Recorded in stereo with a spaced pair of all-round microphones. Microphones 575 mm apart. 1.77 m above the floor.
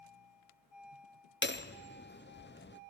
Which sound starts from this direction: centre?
Hammering, at 1.4 s.